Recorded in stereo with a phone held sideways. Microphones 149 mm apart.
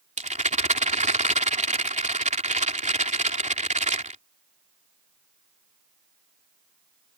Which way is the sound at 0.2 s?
55° right (ahead or behind).